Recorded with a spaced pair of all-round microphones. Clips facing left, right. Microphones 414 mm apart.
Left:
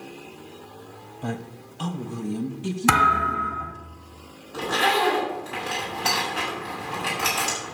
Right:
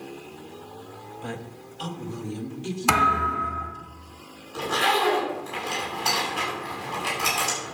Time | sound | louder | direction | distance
1.2 | a woman speaking | left 5 dB | 55° left (ahead or behind) | 1.1 m
2.9 | a thud | left 1 dB | 30° left (ahead or behind) | 1.8 m
4.5 | a zipper | left 2 dB | 75° left (ahead or behind) | 8 m